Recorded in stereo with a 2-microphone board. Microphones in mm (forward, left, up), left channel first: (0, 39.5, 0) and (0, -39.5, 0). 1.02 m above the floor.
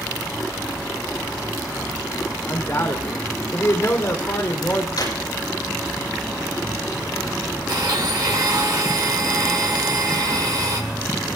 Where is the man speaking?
40° left (ahead or behind), 3 m.